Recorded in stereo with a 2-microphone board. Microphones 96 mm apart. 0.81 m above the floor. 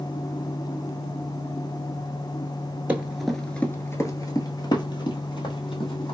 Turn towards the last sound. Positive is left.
turn(degrees=65)  # may be behind; listen again after turning